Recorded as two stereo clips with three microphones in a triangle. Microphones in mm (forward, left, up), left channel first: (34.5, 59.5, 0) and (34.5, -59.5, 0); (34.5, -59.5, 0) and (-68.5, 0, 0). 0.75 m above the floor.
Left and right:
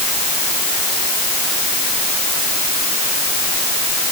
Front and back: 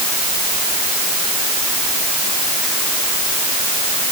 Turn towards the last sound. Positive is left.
No sound to turn to.